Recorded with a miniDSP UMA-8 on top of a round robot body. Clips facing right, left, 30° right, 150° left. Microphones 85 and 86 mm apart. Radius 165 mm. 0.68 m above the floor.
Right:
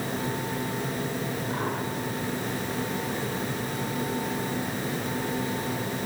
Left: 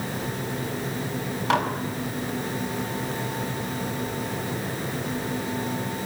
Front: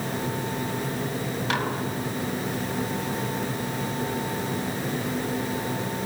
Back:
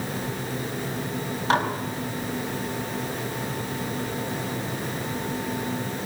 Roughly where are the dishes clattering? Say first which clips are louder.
Left 10 dB, back 6 dB; left.